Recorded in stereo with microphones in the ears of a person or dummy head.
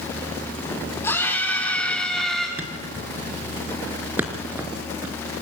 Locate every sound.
1.0 s a scream: 15° left (ahead or behind), 6.5 m; by 2.5 s centre (ahead or behind), 5.5 m
2.6 s a thud: 10° right (ahead or behind), 3 m